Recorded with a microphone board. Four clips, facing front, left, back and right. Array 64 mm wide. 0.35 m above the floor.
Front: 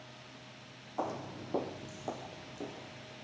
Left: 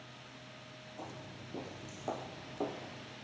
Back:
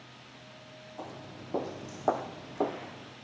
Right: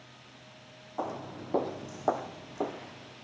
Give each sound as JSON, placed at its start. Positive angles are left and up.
{"t": 1.0, "sound": "footsteps", "azimuth_deg": -55, "distance_m": 1.4}